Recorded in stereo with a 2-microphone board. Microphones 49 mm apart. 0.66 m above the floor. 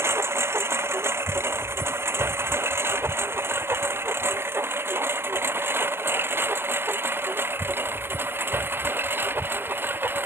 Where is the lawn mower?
65° right (ahead or behind); by 10.3 s 50° right (ahead or behind).